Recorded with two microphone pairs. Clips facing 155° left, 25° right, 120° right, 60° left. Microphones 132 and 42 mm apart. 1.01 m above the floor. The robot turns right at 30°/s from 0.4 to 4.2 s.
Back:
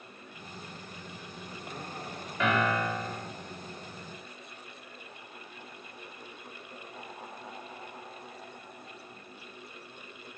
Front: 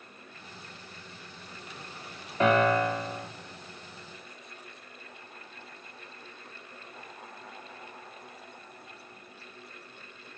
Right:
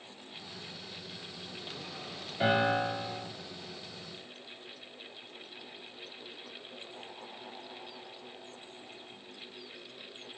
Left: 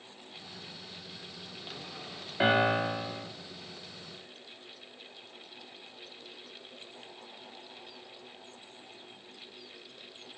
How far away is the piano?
About 1.6 m.